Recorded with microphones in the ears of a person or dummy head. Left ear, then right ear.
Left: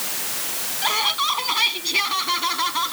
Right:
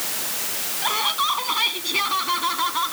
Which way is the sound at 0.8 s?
15° left (ahead or behind).